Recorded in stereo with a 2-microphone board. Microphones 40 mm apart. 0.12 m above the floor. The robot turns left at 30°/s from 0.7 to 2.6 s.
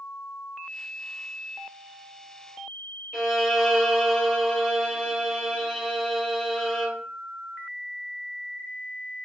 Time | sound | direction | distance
3.1 | a violin | centre (ahead or behind) | 2 m